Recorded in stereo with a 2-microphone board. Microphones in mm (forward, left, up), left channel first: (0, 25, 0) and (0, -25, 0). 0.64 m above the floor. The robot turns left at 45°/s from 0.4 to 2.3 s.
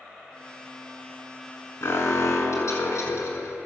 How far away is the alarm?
About 6 m.